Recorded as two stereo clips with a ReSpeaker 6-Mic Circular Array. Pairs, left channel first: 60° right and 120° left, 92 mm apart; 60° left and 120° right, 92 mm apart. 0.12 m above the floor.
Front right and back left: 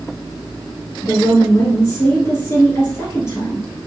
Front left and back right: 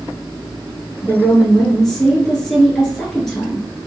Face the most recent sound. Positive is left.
turn(degrees=-25)